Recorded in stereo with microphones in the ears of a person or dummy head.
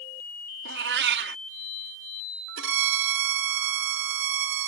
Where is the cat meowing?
60° right (ahead or behind).